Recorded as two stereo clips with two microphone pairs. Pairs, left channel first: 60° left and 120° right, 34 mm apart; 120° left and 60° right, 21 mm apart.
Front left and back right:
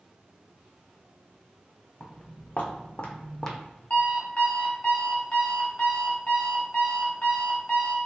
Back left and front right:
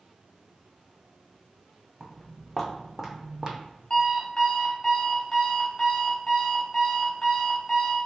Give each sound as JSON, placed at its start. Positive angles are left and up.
{"t": 2.0, "sound": "footsteps", "azimuth_deg": 35, "distance_m": 1.2}
{"t": 3.9, "sound": "an alarm clock", "azimuth_deg": 80, "distance_m": 1.0}